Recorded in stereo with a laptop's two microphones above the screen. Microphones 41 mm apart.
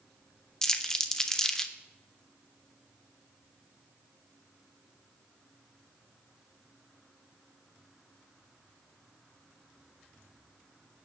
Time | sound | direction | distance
0.6 | crumpling | 10° left (ahead or behind) | 0.6 m